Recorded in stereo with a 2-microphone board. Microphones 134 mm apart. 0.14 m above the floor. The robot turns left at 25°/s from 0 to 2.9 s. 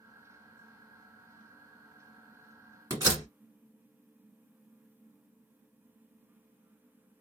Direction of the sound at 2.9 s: 25° right (ahead or behind).